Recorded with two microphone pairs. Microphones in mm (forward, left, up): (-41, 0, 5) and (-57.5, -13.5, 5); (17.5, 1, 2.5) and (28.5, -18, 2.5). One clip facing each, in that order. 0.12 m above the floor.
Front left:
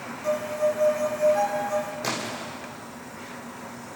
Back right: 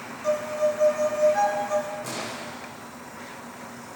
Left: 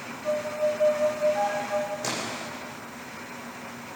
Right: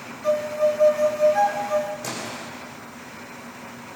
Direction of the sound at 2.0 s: 45° left.